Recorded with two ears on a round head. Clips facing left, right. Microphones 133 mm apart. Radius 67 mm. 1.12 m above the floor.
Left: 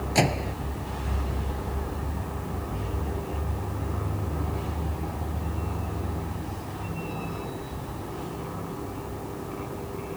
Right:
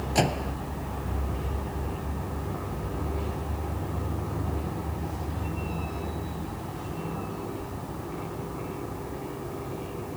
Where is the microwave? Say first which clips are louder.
Left 1 dB; 5° left (ahead or behind).